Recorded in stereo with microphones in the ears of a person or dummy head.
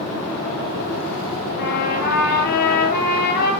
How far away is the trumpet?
About 8 m.